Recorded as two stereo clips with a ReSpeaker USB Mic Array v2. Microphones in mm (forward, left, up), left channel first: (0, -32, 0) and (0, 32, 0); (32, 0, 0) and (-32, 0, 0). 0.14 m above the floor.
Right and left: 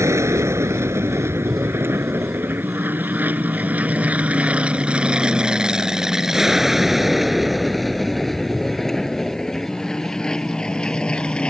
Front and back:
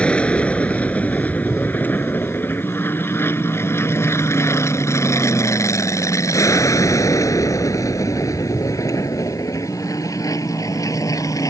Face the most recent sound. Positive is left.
turn(degrees=-20)